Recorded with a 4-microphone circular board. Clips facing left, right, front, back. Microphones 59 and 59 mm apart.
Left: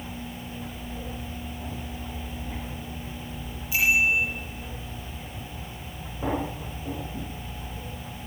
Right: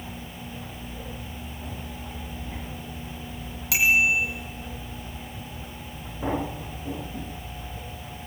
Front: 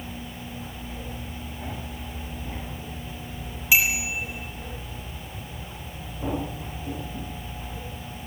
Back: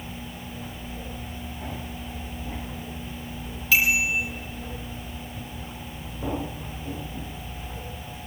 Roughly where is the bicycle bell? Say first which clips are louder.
Right 1 dB, back 2 dB; right.